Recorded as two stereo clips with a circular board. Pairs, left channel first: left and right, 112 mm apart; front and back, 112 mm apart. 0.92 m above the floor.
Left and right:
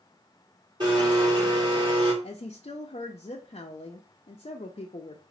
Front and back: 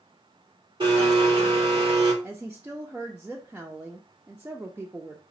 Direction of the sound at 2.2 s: 105° left.